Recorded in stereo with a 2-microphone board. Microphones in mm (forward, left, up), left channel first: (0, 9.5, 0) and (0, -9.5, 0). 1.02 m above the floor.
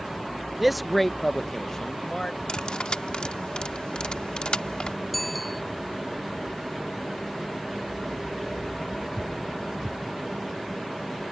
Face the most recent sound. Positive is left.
turn(degrees=5)  # may be behind; listen again after turning